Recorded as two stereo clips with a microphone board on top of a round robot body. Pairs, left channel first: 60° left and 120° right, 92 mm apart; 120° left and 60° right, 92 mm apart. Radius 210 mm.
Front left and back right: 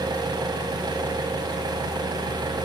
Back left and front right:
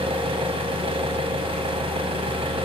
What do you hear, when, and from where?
0.0 s an engine running: 75° right, 4 m